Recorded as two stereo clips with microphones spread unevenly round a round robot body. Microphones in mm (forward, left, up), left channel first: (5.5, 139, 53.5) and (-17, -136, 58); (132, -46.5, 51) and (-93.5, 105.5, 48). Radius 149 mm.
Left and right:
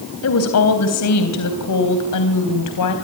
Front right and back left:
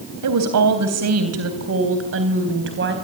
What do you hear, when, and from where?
0.2 s a woman speaking: 125° left, 3.5 m; by 2.9 s 95° left, 4 m